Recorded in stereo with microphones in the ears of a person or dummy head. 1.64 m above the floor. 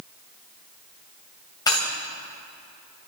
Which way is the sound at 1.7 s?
20° left (ahead or behind).